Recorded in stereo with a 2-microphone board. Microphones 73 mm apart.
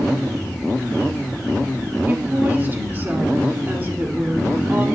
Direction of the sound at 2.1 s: 30° right (ahead or behind).